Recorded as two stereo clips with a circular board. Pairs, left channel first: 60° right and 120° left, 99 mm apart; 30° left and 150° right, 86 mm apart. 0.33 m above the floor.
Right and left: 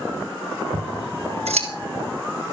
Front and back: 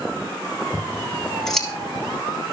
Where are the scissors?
115° left, 2 m.